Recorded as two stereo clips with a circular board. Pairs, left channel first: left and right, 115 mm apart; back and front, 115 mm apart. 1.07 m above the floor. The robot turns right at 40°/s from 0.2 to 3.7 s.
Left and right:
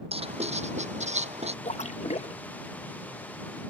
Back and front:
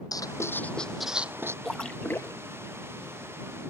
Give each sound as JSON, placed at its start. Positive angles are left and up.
{"t": 0.1, "sound": "writing", "azimuth_deg": -120}
{"t": 1.6, "sound": "a splash", "azimuth_deg": 90}